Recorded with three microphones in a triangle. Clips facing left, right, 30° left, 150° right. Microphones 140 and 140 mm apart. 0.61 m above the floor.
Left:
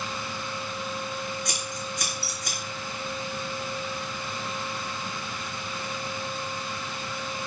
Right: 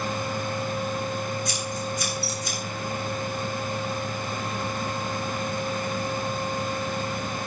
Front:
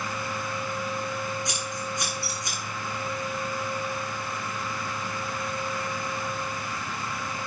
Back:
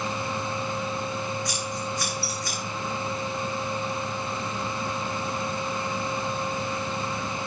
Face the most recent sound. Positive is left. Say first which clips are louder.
# right 4 dB, back 2 dB
turn(degrees=95)